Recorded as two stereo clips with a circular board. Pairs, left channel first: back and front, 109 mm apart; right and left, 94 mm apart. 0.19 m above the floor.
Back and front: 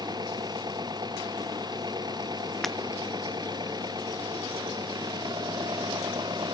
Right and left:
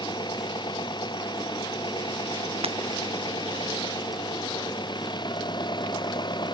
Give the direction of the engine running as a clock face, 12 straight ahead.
2 o'clock.